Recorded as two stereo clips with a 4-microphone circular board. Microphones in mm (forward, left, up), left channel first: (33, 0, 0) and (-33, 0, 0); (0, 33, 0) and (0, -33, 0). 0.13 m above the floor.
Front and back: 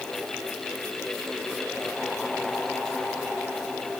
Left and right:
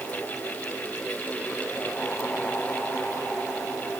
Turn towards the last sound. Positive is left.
No sound to turn to.